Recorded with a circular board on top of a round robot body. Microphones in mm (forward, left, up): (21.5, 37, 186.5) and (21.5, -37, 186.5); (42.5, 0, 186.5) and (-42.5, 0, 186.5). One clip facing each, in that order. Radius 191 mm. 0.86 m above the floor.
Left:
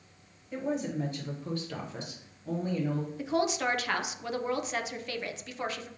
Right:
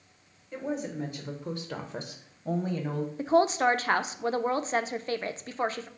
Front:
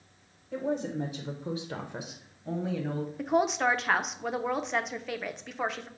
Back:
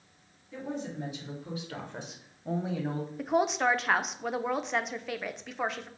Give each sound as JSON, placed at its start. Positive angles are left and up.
{"t": 0.5, "sound": "a woman speaking", "azimuth_deg": 0, "distance_m": 1.1}
{"t": 3.2, "sound": "a woman speaking", "azimuth_deg": -90, "distance_m": 0.5}